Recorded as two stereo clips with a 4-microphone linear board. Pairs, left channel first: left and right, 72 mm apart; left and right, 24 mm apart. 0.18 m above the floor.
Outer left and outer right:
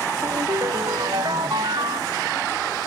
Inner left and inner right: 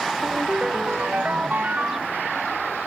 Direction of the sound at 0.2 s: 85° right.